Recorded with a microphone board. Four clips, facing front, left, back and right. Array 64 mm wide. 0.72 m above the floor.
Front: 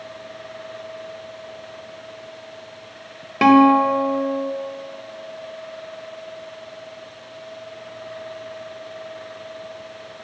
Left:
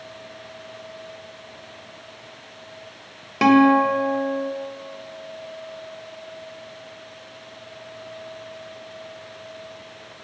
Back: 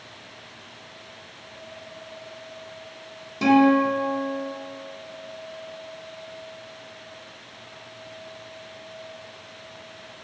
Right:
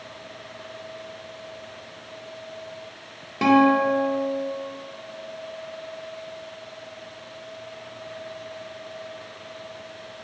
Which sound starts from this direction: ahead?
A guitar, at 3.4 s.